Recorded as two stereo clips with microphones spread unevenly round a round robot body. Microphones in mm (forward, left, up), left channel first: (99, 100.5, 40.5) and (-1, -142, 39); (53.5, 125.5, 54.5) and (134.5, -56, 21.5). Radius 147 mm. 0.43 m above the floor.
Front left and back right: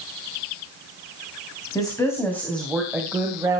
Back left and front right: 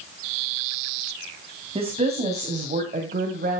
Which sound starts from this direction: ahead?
A woman speaking, at 1.8 s.